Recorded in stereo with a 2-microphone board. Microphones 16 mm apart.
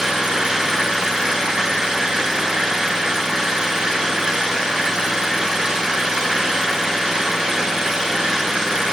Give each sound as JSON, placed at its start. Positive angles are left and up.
{"t": 0.0, "sound": "an engine running", "side_deg": -65, "distance_m": 6.0}